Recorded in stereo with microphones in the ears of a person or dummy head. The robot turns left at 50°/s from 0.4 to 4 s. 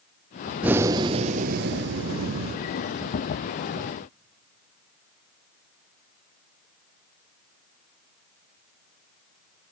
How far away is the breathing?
About 0.5 m.